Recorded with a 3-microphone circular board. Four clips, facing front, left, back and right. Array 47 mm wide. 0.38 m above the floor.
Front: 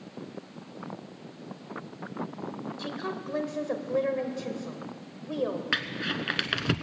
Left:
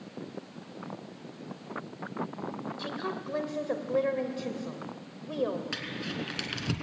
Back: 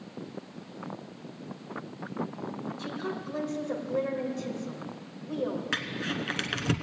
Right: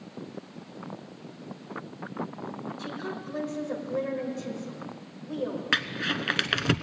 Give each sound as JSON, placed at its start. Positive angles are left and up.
{"t": 2.8, "sound": "a woman speaking", "azimuth_deg": 45, "distance_m": 1.6}
{"t": 5.7, "sound": "crumpling", "azimuth_deg": -75, "distance_m": 0.7}